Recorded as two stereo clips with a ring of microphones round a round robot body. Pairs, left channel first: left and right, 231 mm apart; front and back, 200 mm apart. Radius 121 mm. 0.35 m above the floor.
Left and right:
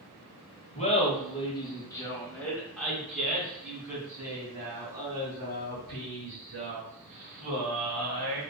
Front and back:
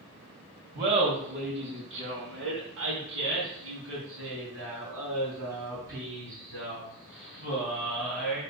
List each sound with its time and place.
0.8 s laughter: 145° left, 1.9 m; by 8.4 s 135° right, 4.5 m